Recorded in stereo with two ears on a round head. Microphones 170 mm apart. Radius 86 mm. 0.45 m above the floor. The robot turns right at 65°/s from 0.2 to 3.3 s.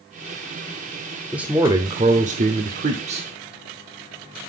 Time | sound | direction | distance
1.3 | a man speaking | 175° right | 1.0 m